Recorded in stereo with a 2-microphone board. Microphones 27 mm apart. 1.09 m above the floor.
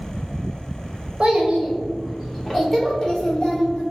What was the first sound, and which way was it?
A child speaking, 45° right (ahead or behind).